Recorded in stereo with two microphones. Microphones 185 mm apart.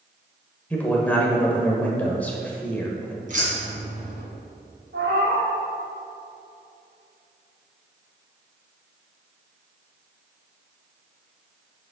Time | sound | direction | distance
0.7 | a man speaking | 10° left (ahead or behind) | 1.1 m
3.3 | keys jangling | 45° right (ahead or behind) | 1.9 m
4.9 | a cat meowing | 80° right | 2.0 m